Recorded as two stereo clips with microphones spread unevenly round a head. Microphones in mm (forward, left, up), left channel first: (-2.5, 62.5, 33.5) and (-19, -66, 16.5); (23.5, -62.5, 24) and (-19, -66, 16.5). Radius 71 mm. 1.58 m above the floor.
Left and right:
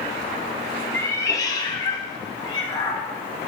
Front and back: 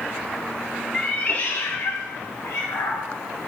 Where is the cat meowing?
35° left, 0.8 m; by 3.0 s 25° left, 2.5 m.